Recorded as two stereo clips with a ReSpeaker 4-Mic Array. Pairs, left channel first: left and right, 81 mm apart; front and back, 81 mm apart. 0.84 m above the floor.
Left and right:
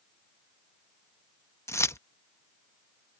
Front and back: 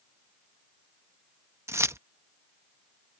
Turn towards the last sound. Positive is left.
turn(degrees=135)